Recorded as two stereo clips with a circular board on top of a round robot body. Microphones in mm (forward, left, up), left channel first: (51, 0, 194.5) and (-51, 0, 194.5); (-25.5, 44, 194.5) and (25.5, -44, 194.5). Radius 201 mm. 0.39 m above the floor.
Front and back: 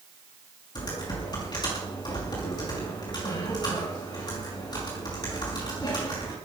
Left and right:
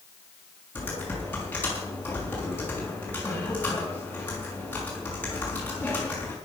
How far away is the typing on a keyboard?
About 5.5 m.